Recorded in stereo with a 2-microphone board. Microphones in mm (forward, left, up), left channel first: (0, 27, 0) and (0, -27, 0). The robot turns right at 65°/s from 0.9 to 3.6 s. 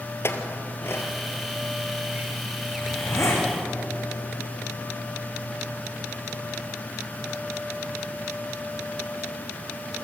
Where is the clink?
45° left (ahead or behind), 2 m; by 3.3 s 65° right (ahead or behind), 2 m.